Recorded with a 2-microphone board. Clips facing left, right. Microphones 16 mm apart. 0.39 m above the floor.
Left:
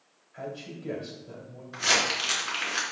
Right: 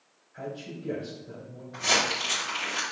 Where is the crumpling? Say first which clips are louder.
Even; 75° left (ahead or behind), 3 m.